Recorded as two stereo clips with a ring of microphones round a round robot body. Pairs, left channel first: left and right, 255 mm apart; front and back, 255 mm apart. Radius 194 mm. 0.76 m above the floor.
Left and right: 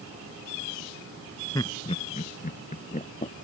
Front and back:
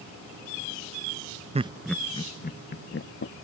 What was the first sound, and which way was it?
Laughter, 150° left.